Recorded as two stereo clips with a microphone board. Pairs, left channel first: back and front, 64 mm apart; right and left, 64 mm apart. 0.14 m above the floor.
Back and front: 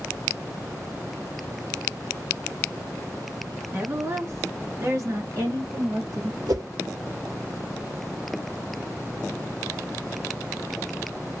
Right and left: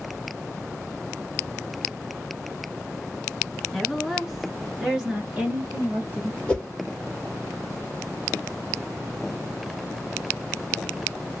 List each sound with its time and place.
3.7 s a woman speaking: 10° right, 1.3 m; by 6.4 s 25° left, 2.5 m
6.5 s a whoosh: 15° right, 1.4 m